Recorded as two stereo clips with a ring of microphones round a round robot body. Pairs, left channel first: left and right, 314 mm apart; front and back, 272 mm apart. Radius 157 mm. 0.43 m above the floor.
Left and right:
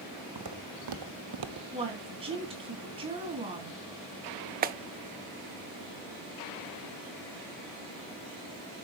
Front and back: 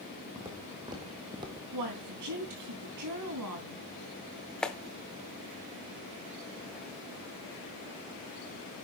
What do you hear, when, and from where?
0.3 s footsteps: 105° right, 1.7 m
1.7 s a woman speaking: 160° right, 3.5 m
4.6 s a clap: 85° right, 0.6 m